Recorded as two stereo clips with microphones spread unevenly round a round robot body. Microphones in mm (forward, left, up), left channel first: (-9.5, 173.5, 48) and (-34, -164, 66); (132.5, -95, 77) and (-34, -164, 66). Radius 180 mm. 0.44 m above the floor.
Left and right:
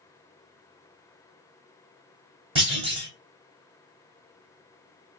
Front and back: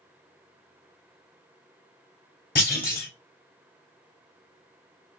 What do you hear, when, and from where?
2.5 s a clunk: 20° right, 1.5 m